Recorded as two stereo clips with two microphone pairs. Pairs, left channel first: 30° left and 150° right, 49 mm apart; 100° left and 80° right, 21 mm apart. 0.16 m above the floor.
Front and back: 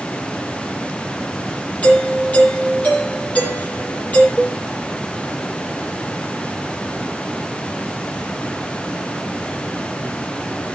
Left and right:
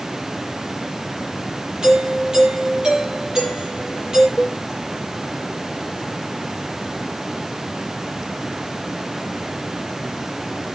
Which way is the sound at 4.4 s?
90° left.